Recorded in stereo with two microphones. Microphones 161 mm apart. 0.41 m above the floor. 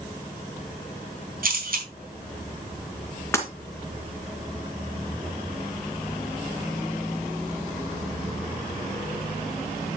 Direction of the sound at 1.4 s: 65° right (ahead or behind).